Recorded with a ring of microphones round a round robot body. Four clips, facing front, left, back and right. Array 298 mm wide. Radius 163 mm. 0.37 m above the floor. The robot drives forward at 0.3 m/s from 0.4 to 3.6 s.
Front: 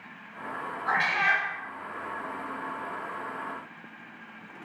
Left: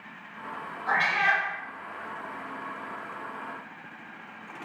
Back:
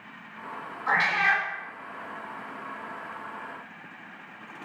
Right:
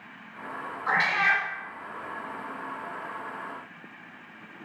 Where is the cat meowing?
130° right, 2.0 m; by 1.4 s 135° right, 2 m.